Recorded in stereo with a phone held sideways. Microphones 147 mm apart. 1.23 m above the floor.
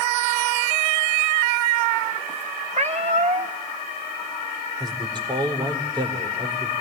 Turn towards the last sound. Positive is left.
turn(degrees=-30)  # may be behind; listen again after turning